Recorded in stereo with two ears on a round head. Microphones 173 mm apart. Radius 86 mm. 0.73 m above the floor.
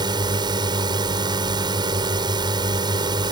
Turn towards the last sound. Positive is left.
turn(degrees=-25)  # may be behind; listen again after turning